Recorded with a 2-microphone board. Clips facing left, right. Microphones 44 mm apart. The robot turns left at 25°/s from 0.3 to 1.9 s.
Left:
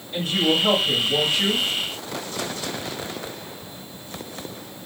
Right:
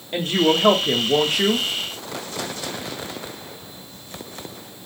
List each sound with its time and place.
0.1 s a woman speaking: 75° right, 1.2 m; by 1.7 s 110° right, 1.2 m